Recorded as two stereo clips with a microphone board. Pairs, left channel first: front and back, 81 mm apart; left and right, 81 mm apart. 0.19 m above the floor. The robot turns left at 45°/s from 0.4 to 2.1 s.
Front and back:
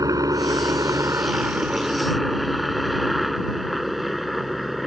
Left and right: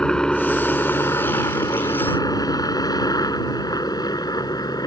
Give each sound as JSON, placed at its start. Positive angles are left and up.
{"t": 0.0, "sound": "a helicopter", "azimuth_deg": 165}